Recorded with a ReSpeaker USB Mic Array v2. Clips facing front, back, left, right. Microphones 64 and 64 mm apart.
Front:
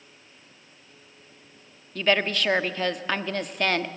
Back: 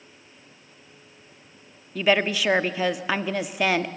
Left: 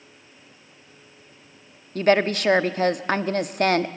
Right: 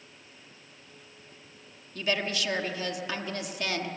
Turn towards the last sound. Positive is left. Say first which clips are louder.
# back 2 dB, left 11 dB
turn(degrees=100)